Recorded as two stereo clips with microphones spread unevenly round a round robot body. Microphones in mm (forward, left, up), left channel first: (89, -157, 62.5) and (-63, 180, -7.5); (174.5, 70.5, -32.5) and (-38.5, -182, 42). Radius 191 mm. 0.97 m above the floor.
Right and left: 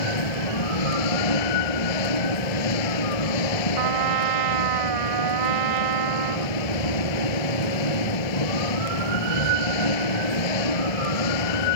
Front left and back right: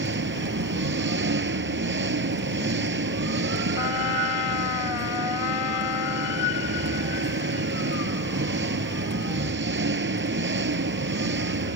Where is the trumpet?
80° left.